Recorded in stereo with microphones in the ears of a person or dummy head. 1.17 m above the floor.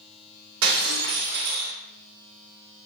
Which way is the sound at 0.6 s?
75° right (ahead or behind).